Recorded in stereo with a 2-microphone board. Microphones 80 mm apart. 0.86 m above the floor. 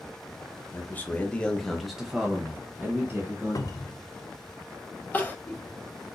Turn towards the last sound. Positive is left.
turn(degrees=20)  # may be behind; listen again after turning